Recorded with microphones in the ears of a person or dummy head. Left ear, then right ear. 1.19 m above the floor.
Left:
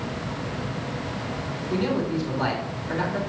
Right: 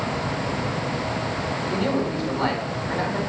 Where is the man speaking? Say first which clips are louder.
Left 1 dB; 10° right (ahead or behind), 4 m.